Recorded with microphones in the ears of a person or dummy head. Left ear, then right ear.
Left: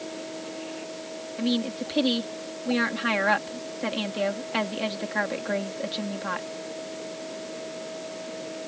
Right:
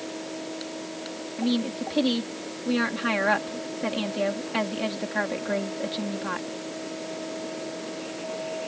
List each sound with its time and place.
1.4 s a woman speaking: 5° left (ahead or behind)